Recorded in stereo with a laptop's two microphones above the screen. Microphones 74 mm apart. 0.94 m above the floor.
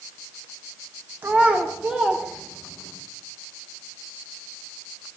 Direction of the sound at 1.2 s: 25° right (ahead or behind).